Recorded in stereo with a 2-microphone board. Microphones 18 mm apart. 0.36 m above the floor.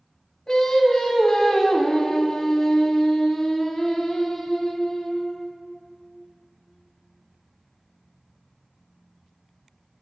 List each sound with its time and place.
0.5 s singing: 40° left (ahead or behind), 1.4 m